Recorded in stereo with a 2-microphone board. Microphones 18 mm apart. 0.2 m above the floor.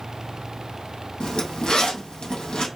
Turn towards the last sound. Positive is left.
turn(degrees=65)  # may be behind; listen again after turning